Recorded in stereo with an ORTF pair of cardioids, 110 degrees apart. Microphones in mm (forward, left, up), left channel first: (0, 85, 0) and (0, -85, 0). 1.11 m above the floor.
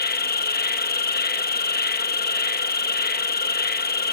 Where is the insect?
65° left.